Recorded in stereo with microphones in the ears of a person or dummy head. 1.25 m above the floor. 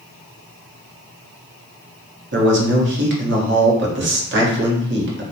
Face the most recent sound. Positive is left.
turn(degrees=-60)  # may be behind; listen again after turning